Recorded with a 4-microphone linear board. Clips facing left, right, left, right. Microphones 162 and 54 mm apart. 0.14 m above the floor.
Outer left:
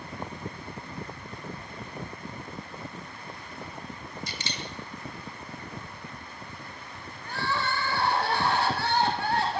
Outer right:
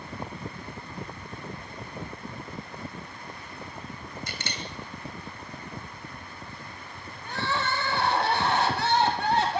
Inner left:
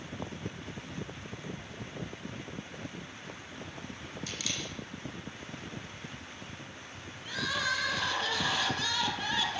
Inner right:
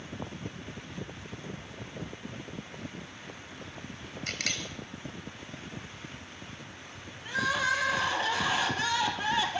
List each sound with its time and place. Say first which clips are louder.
4.3 s a camera shutter: even, inner right 5 dB; 50° right (ahead or behind), 3 m
7.2 s crying: outer right 1 dB, inner right 4 dB; 20° right (ahead or behind), 3 m